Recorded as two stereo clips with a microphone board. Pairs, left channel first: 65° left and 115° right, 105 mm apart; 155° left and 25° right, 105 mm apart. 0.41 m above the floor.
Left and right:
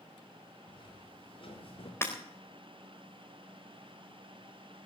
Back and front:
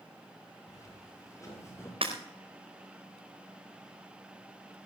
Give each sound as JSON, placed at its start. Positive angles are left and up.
{"t": 0.7, "sound": "footsteps", "azimuth_deg": 105, "distance_m": 4.5}
{"t": 2.0, "sound": "breaking glass", "azimuth_deg": 0, "distance_m": 4.5}